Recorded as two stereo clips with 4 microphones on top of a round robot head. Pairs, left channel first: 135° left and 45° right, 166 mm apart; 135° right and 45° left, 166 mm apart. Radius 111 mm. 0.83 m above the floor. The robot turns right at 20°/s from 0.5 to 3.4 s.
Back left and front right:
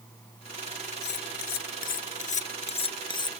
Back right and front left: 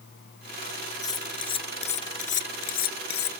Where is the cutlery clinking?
155° left; by 3.3 s 160° right.